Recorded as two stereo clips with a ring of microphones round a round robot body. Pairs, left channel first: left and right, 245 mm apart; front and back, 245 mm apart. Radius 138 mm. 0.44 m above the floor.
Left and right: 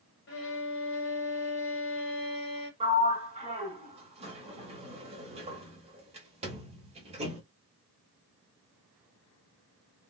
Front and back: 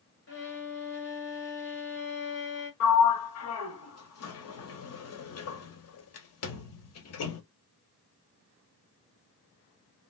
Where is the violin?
45° left, 1.7 m.